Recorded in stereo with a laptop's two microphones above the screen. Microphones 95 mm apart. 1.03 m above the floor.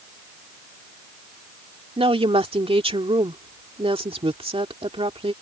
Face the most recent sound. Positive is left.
turn(degrees=-85)